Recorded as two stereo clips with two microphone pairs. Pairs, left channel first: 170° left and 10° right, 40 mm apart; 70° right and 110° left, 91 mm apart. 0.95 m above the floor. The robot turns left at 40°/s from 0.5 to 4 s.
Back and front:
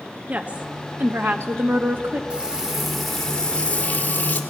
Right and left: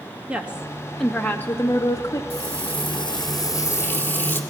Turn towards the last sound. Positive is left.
turn(degrees=-140)